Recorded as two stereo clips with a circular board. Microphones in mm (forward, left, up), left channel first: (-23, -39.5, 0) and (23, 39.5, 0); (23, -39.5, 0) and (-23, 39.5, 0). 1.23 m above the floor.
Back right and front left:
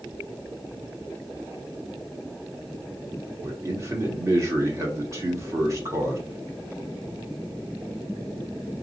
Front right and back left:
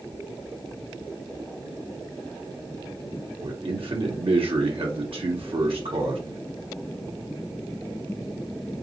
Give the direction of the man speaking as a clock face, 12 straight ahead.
8 o'clock.